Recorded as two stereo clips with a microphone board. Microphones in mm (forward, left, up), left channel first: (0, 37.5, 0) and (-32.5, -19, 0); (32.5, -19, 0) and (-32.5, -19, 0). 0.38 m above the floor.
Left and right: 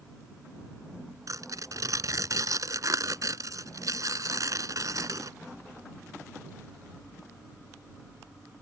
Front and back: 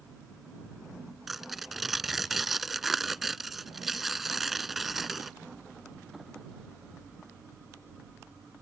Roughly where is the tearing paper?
Right.